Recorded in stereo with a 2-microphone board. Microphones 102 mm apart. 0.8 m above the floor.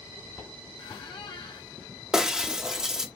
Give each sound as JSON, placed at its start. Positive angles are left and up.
{"t": 0.8, "sound": "a squeak", "side_deg": 60, "distance_m": 1.6}
{"t": 2.1, "sound": "breaking glass", "side_deg": -5, "distance_m": 0.7}